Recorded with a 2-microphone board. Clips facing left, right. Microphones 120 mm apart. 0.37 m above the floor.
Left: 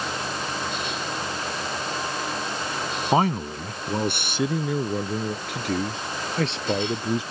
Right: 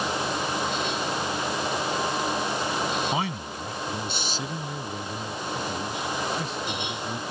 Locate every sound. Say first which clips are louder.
3.1 s a man speaking: left 7 dB; 40° left (ahead or behind); by 7.2 s 80° left